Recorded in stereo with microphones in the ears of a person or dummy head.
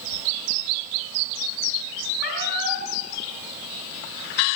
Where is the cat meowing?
65° left (ahead or behind), 9.5 m.